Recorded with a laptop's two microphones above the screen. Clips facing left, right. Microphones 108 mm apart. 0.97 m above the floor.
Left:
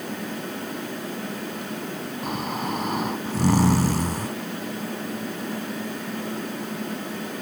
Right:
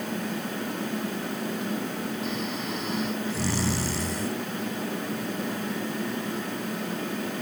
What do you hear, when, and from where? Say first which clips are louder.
2.2 s snoring: left 3 dB; 50° left (ahead or behind)